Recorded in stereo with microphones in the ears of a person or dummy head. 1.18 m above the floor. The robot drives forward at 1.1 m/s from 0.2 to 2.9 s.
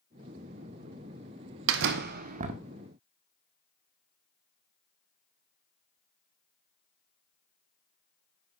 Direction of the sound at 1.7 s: 60° right (ahead or behind).